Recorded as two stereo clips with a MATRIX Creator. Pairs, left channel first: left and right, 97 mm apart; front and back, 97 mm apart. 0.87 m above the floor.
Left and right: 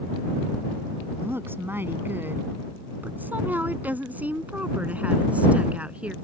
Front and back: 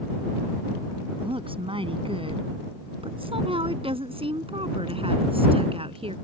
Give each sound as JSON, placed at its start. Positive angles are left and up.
{"t": 1.2, "sound": "a woman speaking", "azimuth_deg": -155}